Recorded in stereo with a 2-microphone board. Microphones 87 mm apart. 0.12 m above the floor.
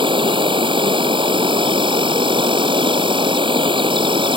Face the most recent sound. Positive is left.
turn(degrees=-70)  # may be behind; listen again after turning